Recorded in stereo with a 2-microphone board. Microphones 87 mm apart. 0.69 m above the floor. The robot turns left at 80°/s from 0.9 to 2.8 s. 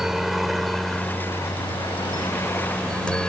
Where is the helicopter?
5° right (ahead or behind); by 3.3 s 10° left (ahead or behind).